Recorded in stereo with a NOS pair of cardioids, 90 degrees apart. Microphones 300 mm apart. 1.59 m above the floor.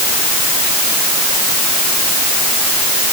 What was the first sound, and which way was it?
Only background noise.